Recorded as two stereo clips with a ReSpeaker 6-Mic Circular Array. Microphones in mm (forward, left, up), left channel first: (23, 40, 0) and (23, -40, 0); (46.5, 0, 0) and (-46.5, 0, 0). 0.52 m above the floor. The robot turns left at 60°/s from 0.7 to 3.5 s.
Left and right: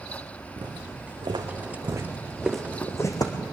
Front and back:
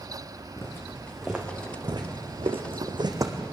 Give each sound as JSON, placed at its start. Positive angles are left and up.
{"t": 0.6, "sound": "footsteps", "azimuth_deg": -60, "distance_m": 3.5}